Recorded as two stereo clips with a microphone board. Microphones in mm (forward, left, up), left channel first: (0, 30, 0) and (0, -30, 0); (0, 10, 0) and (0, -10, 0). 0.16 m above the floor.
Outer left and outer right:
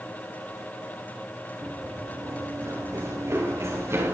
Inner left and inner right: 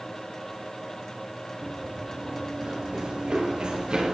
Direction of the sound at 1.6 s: 55° right (ahead or behind).